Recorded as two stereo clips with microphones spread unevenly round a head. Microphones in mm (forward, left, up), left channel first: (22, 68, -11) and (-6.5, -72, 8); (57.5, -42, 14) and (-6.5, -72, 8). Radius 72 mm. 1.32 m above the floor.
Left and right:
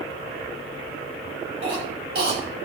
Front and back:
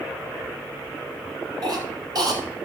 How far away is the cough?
About 5 m.